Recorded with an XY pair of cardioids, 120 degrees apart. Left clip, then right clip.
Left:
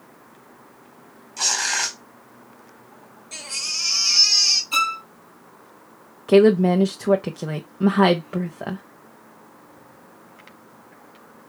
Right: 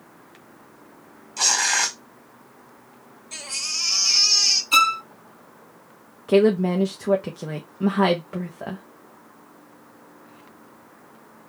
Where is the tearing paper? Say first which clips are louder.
Right 2 dB; 25° right, 2.5 m.